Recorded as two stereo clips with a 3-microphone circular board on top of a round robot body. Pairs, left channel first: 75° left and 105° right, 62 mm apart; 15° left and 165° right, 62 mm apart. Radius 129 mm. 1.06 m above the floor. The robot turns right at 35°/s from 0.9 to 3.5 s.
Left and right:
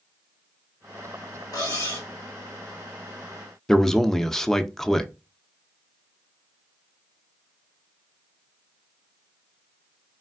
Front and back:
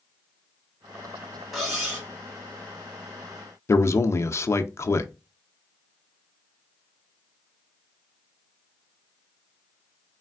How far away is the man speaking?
About 0.5 m.